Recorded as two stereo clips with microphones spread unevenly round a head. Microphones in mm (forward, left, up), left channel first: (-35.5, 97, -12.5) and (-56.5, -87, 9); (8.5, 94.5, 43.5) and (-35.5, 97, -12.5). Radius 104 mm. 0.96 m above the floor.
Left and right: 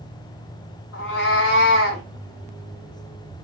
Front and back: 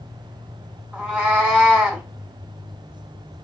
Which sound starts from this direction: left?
A cat meowing, at 0.9 s.